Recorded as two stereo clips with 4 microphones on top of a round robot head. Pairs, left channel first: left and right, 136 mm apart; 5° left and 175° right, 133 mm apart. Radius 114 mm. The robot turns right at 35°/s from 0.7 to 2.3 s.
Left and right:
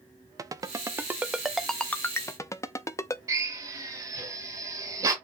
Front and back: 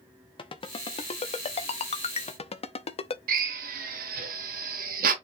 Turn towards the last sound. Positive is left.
turn(degrees=-165)